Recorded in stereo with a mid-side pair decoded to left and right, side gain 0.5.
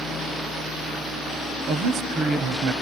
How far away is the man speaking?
About 1.1 m.